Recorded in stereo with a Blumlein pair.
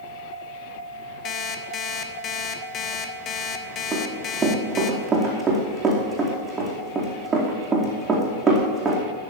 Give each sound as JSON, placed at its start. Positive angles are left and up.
{"t": 1.2, "sound": "an alarm clock", "azimuth_deg": 30, "distance_m": 1.3}
{"t": 3.9, "sound": "running footsteps", "azimuth_deg": -15, "distance_m": 4.5}